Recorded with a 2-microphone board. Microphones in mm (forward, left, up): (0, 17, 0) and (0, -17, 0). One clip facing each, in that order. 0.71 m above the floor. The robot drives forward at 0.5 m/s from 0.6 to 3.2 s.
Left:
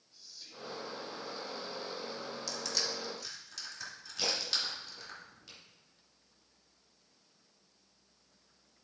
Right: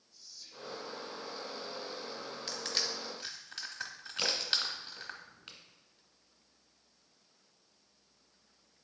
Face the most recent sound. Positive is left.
turn(degrees=-45)  # may be behind; listen again after turning